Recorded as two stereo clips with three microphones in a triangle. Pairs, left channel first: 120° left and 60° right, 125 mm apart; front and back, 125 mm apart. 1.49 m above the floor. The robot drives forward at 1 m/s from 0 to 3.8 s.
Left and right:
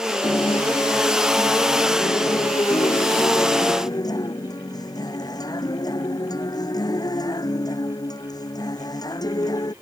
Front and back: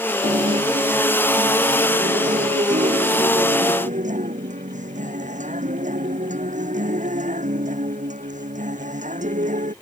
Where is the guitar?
Straight behind.